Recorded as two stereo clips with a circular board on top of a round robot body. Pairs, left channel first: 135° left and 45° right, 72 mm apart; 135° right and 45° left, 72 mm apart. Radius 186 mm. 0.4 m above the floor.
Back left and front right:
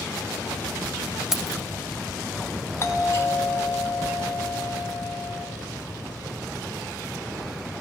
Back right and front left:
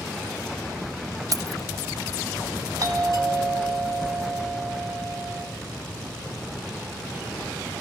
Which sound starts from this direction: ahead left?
Keys jangling, at 1.3 s.